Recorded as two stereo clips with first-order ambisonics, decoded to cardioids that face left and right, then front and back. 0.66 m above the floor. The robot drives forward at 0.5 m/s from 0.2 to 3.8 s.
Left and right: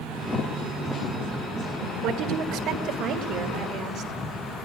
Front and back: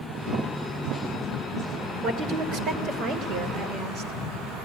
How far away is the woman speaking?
About 2 m.